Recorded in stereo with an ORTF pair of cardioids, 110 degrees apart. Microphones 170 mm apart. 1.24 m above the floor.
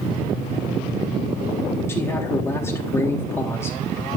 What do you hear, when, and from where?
1.9 s a man speaking: 15° left, 3.5 m